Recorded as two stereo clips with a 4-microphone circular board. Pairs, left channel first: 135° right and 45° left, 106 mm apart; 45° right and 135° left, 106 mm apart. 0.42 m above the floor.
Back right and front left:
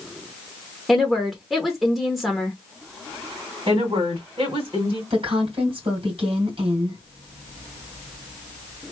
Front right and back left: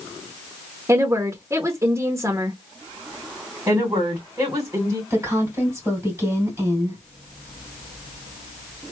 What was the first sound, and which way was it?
A woman speaking, 135° left.